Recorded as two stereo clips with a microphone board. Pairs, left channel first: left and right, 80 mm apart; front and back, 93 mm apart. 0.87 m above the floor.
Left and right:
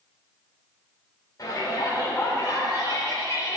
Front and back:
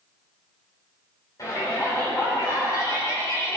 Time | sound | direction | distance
1.4 | a shout | 45° left | 3 m